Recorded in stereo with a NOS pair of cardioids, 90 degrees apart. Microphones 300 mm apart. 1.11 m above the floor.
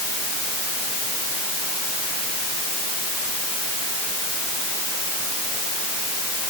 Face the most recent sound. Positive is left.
No sound to turn to.